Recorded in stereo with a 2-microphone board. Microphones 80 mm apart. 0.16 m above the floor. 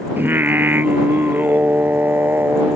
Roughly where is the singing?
Right.